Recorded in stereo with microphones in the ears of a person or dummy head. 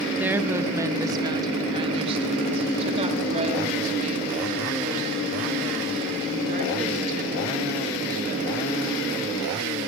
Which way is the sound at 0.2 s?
5° right (ahead or behind).